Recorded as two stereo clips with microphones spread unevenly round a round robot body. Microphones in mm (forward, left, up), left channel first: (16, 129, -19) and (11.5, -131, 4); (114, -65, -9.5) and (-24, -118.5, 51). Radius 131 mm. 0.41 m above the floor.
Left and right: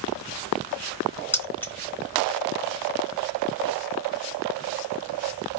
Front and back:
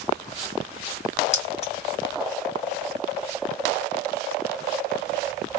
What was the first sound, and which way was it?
Keys jangling, 10° left.